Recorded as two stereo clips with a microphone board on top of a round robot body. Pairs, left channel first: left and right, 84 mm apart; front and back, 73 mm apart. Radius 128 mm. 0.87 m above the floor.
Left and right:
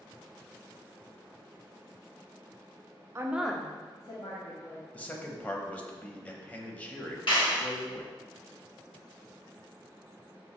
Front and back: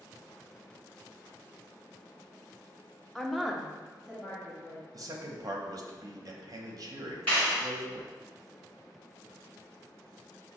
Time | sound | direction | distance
3.1 | a woman speaking | 85° right | 0.7 m
4.9 | a man speaking | 160° left | 0.8 m
7.3 | a clap | 75° left | 1.7 m